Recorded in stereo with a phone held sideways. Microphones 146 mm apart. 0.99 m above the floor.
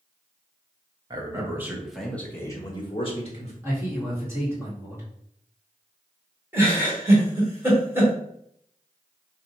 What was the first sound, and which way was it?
A man speaking, 30° right (ahead or behind).